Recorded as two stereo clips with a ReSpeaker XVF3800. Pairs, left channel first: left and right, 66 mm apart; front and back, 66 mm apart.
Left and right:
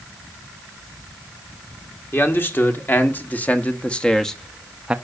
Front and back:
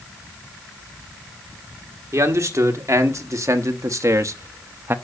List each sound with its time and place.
2.1 s a man speaking: 145° left, 1.8 m; by 5.0 s 155° right, 0.6 m